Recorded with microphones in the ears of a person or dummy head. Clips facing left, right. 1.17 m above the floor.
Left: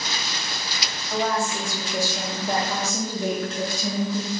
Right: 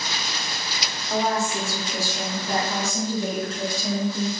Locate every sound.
1.1 s a woman speaking: 35° right (ahead or behind), 0.6 m; by 4.3 s 70° left (ahead or behind), 1.4 m